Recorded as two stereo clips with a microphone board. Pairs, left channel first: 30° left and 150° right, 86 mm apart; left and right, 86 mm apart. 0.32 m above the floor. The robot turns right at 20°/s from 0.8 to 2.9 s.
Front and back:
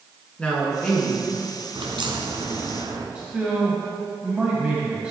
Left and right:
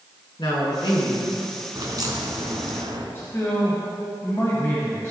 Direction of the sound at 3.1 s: 140° left.